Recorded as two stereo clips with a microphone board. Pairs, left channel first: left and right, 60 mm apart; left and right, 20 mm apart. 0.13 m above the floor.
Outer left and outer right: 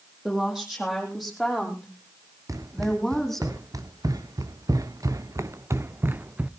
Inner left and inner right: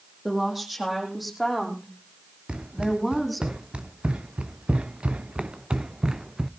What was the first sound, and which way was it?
A woman speaking, 5° right (ahead or behind).